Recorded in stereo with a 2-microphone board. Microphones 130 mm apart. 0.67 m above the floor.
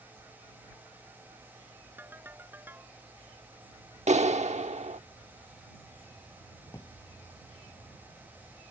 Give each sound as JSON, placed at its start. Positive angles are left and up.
{"t": 2.0, "sound": "a ringtone", "side_deg": -15}
{"t": 4.1, "sound": "a clap", "side_deg": -60}
{"t": 6.7, "sound": "a drawer", "side_deg": 30}